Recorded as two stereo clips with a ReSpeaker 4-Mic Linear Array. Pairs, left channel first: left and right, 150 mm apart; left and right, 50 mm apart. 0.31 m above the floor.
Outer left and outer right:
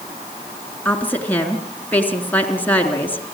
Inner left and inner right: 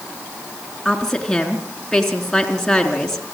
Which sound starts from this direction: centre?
A woman speaking, at 0.8 s.